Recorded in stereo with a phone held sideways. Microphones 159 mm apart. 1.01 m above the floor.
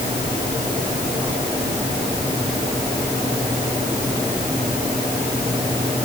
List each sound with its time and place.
Only background noise.